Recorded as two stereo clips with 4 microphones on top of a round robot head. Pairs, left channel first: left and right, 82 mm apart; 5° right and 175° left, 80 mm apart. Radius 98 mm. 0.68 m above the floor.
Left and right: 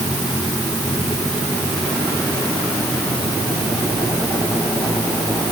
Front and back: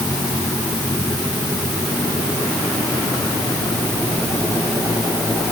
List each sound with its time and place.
Only background noise.